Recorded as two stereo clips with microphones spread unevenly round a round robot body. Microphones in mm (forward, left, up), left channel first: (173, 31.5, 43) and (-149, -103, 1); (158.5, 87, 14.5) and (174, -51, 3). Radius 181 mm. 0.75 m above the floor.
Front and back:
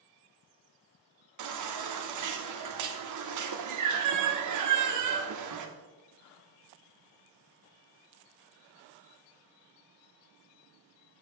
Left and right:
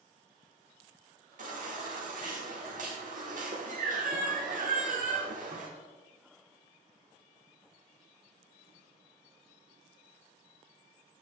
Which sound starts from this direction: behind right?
A baby crying, at 1.4 s.